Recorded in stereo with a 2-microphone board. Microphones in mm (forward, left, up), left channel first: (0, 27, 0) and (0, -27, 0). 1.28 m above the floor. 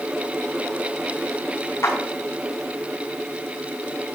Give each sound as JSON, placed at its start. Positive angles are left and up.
{"t": 1.8, "sound": "a clap", "side_deg": 60, "distance_m": 8.0}